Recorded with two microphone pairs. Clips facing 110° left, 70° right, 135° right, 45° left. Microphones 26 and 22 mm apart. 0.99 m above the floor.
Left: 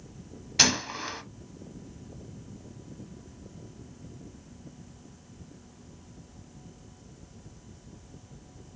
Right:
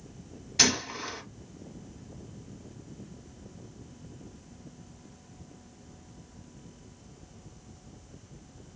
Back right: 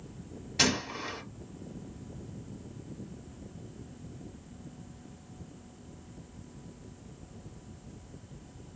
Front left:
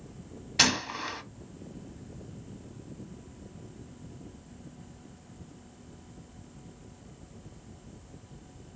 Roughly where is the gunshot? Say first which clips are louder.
Left 1 dB, front left 3 dB; left.